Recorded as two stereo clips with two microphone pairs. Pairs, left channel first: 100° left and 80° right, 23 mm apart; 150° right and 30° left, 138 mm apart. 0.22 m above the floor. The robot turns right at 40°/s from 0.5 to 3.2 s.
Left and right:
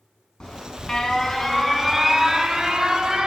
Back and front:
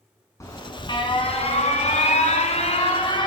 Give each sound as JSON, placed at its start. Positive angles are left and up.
{"t": 0.4, "sound": "an alarm", "azimuth_deg": 150, "distance_m": 3.0}